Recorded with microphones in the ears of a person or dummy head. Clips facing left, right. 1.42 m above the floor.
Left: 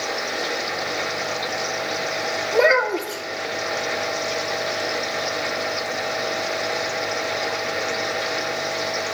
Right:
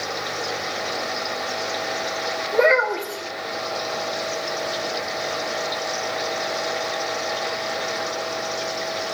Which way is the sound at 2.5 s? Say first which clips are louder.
Even; 15° left (ahead or behind).